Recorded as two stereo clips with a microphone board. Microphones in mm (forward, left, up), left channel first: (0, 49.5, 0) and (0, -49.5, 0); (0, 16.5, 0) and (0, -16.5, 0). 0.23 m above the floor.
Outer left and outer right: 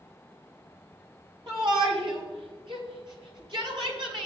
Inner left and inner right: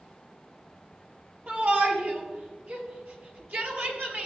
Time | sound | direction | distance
1.5 | a shout | 60° right (ahead or behind) | 4.5 m